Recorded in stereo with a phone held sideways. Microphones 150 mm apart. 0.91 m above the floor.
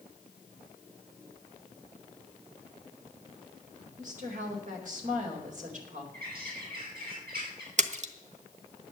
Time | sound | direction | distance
4.0 | a woman speaking | 60° right (ahead or behind) | 4 m
6.1 | a bird | 80° right | 5.5 m
7.8 | a splash | 55° right (ahead or behind) | 1.1 m